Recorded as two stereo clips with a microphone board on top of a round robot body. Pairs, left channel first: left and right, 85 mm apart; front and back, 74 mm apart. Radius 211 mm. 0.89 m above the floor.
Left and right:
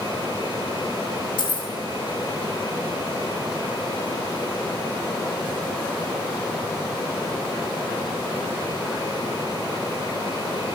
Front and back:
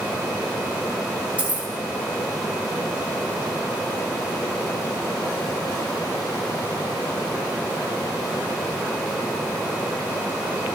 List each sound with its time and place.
1.4 s keys jangling: 110° left, 1.0 m